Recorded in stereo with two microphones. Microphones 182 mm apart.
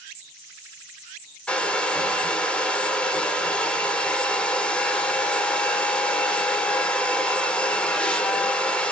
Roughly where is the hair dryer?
Centre.